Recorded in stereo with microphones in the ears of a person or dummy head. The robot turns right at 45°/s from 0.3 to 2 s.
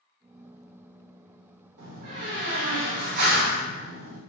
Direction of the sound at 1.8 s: 60° right (ahead or behind).